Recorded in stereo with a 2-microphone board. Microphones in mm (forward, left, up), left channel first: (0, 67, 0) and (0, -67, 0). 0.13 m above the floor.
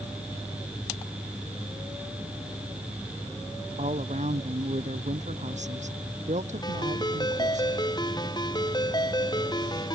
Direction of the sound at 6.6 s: 30° left (ahead or behind).